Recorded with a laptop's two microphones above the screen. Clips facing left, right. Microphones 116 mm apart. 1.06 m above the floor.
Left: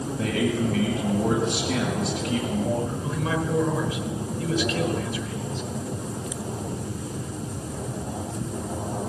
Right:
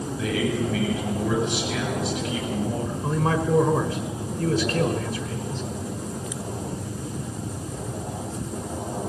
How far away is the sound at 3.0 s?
About 4.5 m.